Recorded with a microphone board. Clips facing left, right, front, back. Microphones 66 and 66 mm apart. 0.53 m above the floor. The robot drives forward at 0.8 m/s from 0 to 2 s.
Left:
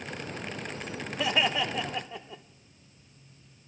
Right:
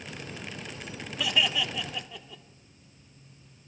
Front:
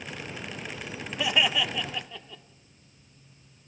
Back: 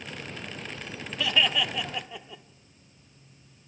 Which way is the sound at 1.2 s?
60° left.